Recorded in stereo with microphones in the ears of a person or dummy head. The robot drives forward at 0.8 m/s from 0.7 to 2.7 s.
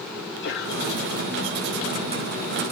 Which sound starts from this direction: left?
A sneeze, at 0.2 s.